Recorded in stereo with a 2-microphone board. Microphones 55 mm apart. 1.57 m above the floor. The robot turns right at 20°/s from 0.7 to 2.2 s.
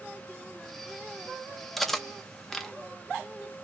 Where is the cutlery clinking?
Centre (ahead or behind), 0.6 m; by 2.7 s 5° left (ahead or behind), 0.6 m.